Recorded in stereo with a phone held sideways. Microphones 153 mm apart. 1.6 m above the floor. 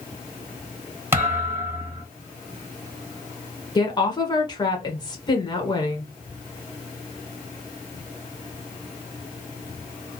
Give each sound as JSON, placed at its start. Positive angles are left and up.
{"t": 1.1, "sound": "a thud", "side_deg": -15, "distance_m": 2.5}
{"t": 3.8, "sound": "a woman speaking", "side_deg": 25, "distance_m": 1.4}